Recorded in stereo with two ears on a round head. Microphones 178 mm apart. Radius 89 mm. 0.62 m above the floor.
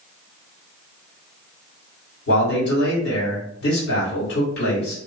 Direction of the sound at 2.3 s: 55° left (ahead or behind).